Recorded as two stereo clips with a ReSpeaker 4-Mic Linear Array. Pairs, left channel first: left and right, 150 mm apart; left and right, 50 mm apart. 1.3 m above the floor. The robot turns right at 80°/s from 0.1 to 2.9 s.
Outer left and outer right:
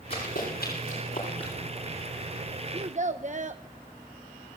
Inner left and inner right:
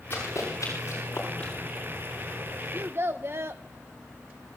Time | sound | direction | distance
0.1 | running footsteps | 35° left (ahead or behind) | 7 m
2.7 | a child speaking | 40° right (ahead or behind) | 0.6 m